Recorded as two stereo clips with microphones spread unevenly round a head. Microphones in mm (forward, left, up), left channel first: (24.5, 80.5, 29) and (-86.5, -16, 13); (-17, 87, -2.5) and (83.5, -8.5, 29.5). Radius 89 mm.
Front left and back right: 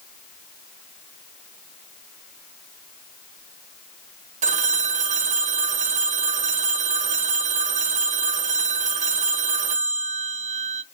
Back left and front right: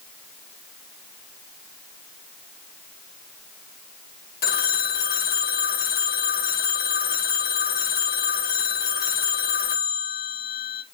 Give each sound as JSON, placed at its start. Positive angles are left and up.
{"t": 4.4, "sound": "a phone ringing", "azimuth_deg": 180, "distance_m": 0.6}